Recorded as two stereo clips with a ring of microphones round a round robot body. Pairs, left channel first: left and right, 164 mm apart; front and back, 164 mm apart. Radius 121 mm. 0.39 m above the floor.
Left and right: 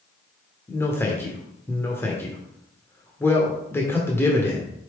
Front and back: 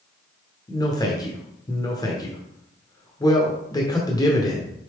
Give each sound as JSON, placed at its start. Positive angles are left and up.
{"t": 0.7, "sound": "a man speaking", "azimuth_deg": 30, "distance_m": 1.2}